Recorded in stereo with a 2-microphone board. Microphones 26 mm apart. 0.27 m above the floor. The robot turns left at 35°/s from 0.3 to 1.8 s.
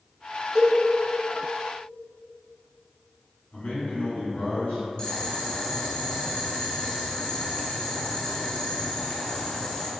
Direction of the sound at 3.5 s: 55° left (ahead or behind).